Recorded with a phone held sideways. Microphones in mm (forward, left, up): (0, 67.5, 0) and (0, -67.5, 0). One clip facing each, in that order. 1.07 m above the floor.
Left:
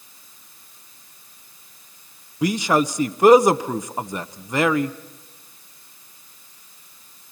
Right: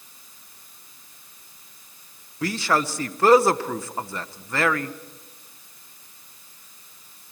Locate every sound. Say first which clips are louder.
2.4 s a man speaking: left 4 dB; 15° left (ahead or behind), 0.7 m